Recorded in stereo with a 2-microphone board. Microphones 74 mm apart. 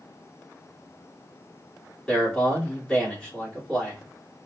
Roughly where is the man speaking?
Centre.